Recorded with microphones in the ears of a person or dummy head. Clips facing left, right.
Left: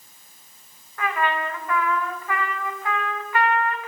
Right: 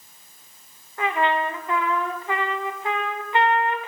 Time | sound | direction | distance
1.0 | a trumpet | 20° right (ahead or behind) | 0.6 m